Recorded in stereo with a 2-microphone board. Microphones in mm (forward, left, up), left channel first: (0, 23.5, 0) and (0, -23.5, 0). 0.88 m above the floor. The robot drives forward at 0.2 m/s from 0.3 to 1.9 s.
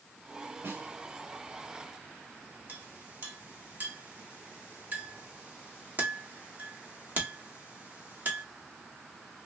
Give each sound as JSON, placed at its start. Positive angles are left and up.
{"t": 0.6, "sound": "a snare drum", "side_deg": -70, "distance_m": 2.5}
{"t": 2.7, "sound": "a clink", "side_deg": -45, "distance_m": 1.5}